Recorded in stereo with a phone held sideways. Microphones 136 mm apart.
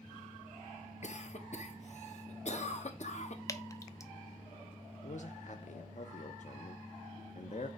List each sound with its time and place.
1.0 s a cough: 55° left (ahead or behind), 1.3 m
3.5 s dripping: 25° left (ahead or behind), 0.6 m
5.0 s a man speaking: 60° left (ahead or behind), 0.6 m